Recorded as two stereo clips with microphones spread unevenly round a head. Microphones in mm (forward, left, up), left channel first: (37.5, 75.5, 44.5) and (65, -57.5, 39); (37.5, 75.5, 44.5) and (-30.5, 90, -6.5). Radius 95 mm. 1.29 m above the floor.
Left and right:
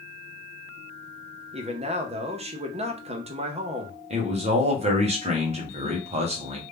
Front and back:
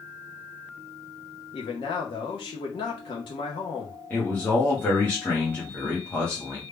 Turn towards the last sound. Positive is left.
turn(degrees=-110)